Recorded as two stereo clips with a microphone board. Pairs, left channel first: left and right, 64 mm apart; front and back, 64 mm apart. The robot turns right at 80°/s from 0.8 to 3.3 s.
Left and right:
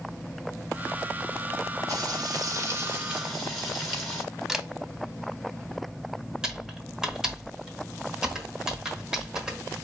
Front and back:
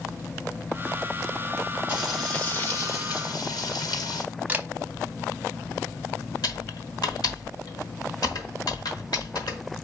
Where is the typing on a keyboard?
10° right, 1.3 m.